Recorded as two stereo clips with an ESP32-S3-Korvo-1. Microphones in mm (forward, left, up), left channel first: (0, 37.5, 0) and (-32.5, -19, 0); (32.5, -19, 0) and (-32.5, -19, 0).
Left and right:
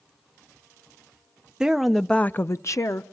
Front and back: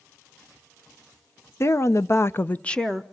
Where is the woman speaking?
40° right, 0.9 m; by 3.0 s 85° left, 0.9 m.